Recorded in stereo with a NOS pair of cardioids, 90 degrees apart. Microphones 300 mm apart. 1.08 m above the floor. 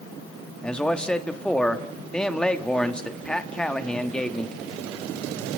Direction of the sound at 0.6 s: 5° left.